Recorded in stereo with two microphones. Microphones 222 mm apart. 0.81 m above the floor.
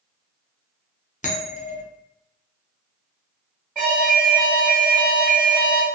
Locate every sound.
1.2 s a bell: 35° left (ahead or behind), 0.6 m
3.8 s an alarm: 5° right (ahead or behind), 1.2 m